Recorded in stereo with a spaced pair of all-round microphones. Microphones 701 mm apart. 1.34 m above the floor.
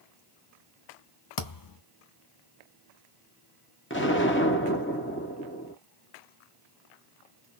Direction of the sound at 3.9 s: 15° left (ahead or behind).